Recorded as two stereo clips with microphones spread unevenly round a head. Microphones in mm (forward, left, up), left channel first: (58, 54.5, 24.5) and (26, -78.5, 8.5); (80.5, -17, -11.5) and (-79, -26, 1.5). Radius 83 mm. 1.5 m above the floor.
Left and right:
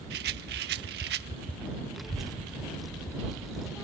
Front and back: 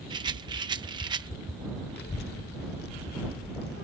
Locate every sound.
0.1 s a rattle: 115° right
2.0 s a child speaking: 10° right